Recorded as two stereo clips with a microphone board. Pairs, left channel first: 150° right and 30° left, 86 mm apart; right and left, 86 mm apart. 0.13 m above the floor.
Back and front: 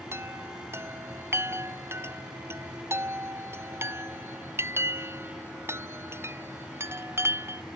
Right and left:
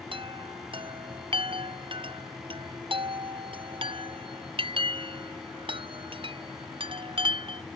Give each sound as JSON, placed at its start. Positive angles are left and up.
{"t": 0.1, "sound": "a chime", "azimuth_deg": 90}